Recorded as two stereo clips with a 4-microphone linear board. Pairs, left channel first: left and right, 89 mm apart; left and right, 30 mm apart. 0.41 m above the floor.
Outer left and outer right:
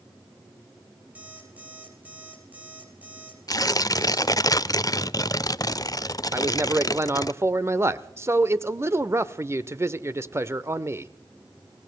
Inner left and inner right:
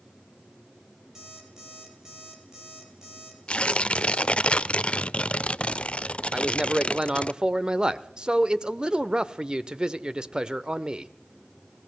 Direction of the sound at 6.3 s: 30° right (ahead or behind).